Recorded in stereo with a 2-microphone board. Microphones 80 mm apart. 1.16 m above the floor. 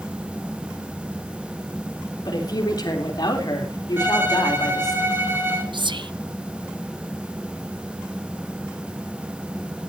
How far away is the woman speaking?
About 3.5 m.